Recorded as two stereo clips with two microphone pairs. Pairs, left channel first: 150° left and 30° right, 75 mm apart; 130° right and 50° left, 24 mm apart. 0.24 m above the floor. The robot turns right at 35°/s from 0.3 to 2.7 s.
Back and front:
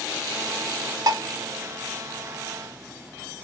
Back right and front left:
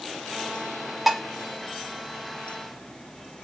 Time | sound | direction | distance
1.1 | dishes clattering | 25° right | 0.9 m